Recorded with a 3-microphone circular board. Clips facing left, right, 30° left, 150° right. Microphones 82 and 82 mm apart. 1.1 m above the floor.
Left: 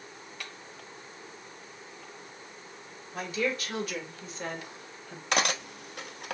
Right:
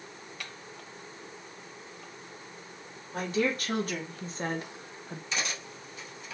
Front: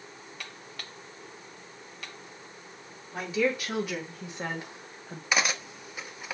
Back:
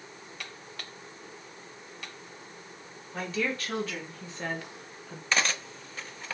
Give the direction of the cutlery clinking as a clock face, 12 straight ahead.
8 o'clock.